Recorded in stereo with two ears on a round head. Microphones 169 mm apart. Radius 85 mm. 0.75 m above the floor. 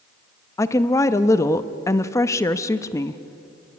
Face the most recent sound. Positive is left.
turn(degrees=15)  # may be behind; listen again after turning